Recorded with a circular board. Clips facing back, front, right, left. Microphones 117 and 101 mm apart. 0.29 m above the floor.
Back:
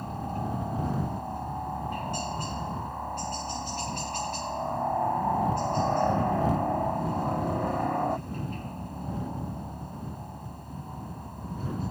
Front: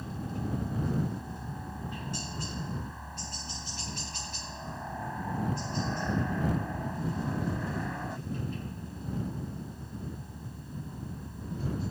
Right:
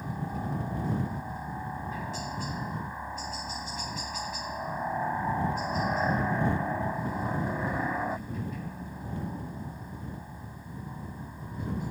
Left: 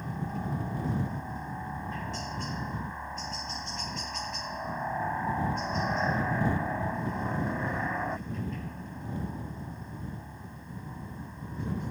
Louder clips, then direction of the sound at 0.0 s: Back 4 dB, even; 175° right.